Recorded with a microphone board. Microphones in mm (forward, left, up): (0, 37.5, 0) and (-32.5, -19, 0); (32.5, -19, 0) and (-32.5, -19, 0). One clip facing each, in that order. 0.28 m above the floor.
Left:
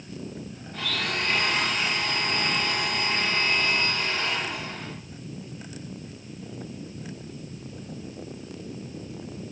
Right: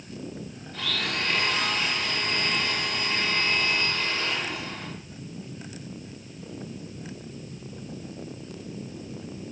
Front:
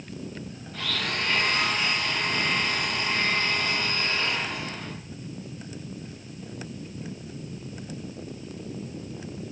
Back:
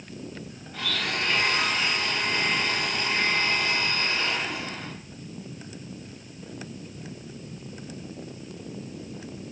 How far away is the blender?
About 1.2 m.